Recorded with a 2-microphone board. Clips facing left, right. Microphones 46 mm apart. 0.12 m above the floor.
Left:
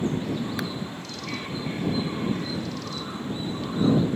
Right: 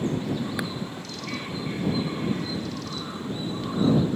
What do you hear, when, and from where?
0.6 s a clap: 10° right (ahead or behind)